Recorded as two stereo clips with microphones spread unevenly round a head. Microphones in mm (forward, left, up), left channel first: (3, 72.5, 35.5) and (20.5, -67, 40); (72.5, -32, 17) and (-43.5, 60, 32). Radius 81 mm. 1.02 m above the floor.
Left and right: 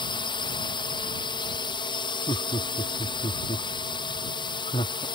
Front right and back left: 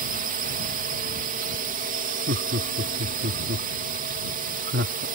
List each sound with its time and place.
0.0 s a drone: 145° left
2.3 s laughter: 155° left